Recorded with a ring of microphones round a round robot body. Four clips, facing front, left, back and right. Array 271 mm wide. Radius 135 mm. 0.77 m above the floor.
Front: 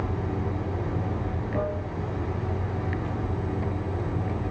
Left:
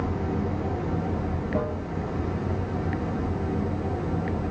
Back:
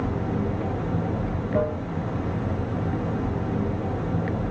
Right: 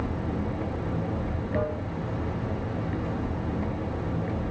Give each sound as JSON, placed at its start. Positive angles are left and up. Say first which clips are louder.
{"t": 0.0, "sound": "running water", "louder": "left 3 dB, back 3 dB", "azimuth_deg": 165, "distance_m": 0.8}